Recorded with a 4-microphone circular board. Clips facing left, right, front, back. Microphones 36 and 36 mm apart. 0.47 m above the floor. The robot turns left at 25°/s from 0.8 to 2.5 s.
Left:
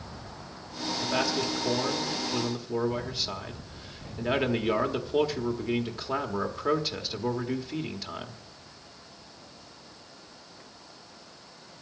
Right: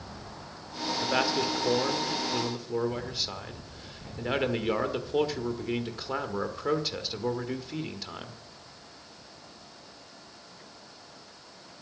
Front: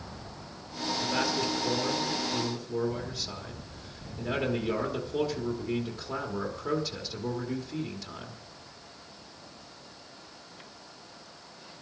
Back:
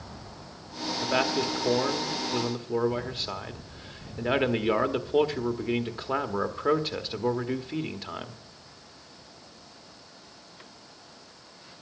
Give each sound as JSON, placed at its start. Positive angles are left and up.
{"t": 1.0, "sound": "a man speaking", "azimuth_deg": -145, "distance_m": 1.4}